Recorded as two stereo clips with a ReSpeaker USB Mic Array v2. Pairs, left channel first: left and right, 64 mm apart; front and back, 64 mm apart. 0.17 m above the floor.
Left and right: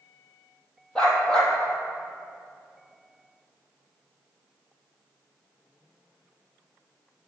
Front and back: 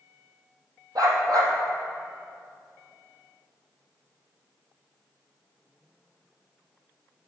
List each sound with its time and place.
0.9 s a dog barking: 165° left, 2 m